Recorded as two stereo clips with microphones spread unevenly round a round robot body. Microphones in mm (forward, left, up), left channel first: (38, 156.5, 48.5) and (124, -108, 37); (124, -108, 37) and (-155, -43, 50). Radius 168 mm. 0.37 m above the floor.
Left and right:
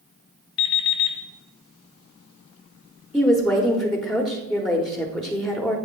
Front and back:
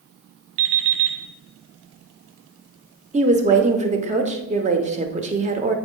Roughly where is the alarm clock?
Behind left.